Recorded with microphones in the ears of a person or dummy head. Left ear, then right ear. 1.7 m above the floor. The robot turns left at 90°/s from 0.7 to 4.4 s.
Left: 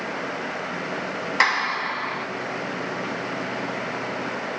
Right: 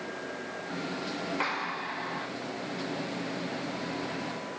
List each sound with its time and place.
1.4 s a clap: 105° left, 1.9 m; by 2.3 s 25° left, 1.9 m